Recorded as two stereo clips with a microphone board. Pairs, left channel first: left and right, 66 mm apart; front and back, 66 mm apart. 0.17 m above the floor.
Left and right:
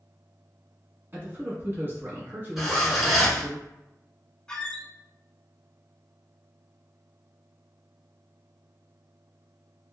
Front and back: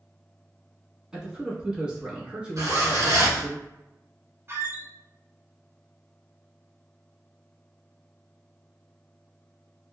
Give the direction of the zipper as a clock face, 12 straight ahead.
6 o'clock.